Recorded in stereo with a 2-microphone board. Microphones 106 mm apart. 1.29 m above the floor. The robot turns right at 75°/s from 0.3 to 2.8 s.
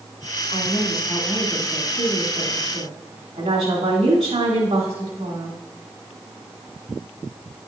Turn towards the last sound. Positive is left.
turn(degrees=-85)